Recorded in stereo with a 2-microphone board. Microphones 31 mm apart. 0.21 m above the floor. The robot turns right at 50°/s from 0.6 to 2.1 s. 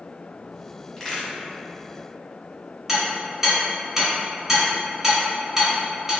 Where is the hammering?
10° right (ahead or behind), 2.0 m.